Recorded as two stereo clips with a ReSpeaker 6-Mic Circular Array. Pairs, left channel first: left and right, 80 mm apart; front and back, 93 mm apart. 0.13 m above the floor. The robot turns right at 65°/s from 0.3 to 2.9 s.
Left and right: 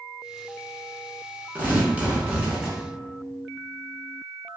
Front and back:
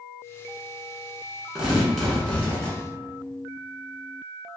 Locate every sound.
1.6 s tearing paper: 105° right, 1.1 m; by 2.8 s 25° right, 1.1 m